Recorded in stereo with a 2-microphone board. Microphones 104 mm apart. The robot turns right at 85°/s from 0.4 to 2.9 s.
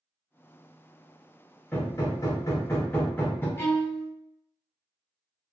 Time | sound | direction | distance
1.7 | hammering | 35° left | 0.8 m
3.6 | a violin | 25° left (ahead or behind) | 1.0 m